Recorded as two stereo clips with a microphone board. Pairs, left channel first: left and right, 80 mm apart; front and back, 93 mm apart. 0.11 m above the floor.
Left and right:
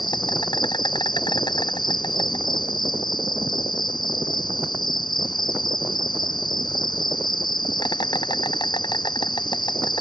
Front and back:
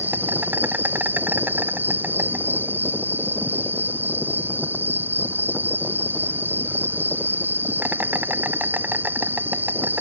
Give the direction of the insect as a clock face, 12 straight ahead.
8 o'clock.